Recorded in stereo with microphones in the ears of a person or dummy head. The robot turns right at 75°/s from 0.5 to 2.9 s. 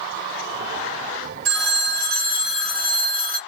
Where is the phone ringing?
90° right, 1.5 m; by 3.4 s 15° left, 1.5 m.